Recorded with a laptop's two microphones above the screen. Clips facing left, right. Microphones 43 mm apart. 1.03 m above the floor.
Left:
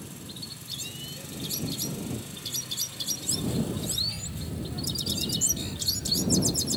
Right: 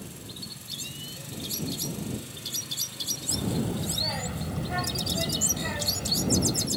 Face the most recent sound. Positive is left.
turn(degrees=-65)  # may be behind; listen again after turning